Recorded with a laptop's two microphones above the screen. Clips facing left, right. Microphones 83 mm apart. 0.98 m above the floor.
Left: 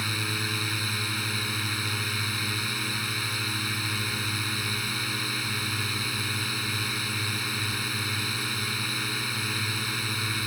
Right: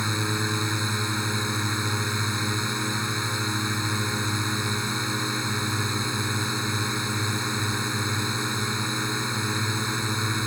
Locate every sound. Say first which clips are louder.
0.0 s a drone: right 5 dB; 25° right (ahead or behind)